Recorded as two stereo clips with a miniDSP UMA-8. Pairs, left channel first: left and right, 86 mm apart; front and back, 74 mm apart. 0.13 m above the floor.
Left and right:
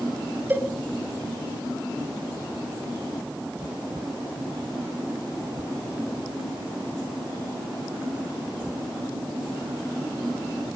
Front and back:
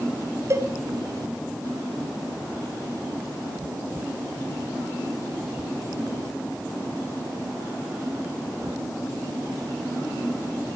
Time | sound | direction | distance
0.5 | a cowbell | 150° right | 1.4 m